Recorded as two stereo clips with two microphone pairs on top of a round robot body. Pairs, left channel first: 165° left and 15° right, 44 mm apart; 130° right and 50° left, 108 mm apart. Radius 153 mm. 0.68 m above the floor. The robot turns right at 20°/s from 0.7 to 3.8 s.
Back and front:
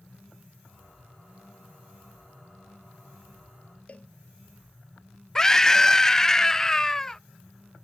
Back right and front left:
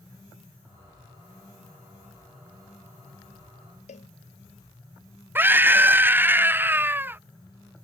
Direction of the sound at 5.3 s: 105° left.